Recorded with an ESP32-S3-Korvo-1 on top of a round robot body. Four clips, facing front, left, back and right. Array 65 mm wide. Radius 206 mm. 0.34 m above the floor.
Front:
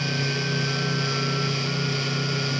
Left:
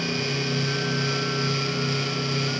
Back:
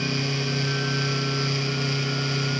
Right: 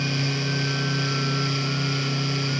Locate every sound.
Only background noise.